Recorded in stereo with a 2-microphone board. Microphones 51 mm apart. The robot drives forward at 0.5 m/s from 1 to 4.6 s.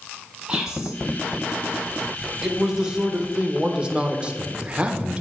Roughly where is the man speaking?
Centre.